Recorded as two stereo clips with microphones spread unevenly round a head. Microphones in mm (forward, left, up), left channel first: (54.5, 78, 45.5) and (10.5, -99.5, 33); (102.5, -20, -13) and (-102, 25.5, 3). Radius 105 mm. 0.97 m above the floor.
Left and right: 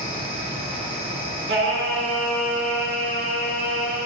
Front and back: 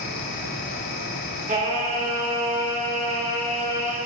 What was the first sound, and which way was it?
A fan, 50° right.